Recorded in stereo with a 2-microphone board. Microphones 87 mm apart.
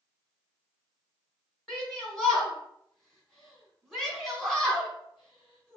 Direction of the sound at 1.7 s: 5° left (ahead or behind).